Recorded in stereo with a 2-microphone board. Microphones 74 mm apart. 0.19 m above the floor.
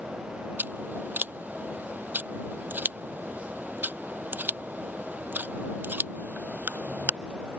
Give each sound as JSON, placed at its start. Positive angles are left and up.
{"t": 0.6, "sound": "scissors", "side_deg": -25}